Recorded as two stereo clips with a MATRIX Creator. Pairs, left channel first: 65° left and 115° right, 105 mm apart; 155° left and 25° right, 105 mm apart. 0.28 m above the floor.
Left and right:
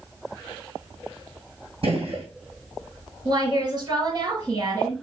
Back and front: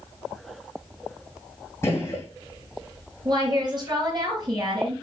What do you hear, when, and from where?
1.8 s a gunshot: 135° right, 2.5 m
3.2 s a woman speaking: 65° right, 4 m